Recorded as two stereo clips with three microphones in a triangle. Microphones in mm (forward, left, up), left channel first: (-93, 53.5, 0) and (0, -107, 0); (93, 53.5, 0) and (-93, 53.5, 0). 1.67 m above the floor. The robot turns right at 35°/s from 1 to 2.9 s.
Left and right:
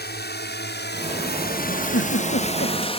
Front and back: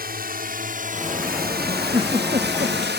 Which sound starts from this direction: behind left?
A drone, at 0.0 s.